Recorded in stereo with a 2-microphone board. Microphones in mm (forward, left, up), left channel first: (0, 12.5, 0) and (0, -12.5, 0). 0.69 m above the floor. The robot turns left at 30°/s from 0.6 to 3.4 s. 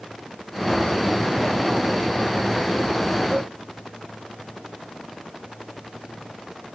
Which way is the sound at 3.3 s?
45° right (ahead or behind).